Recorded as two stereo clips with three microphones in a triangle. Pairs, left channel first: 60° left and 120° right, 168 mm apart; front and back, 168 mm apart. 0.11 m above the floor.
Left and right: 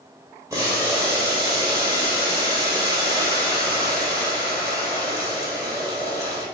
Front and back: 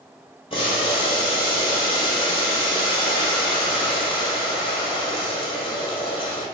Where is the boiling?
50° right, 1.7 m.